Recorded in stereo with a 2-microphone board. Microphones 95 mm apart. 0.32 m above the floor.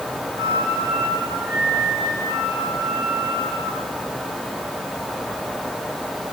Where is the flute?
45° right (ahead or behind), 7.5 m.